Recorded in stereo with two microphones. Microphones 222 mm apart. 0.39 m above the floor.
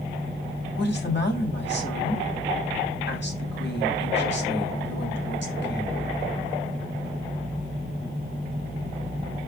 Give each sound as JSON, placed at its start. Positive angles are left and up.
{"t": 0.8, "sound": "a woman speaking", "side_deg": 55, "distance_m": 2.5}